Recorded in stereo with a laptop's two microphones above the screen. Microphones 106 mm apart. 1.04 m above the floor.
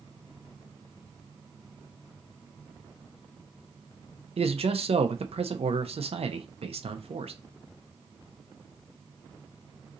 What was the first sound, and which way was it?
A man speaking, 70° right (ahead or behind).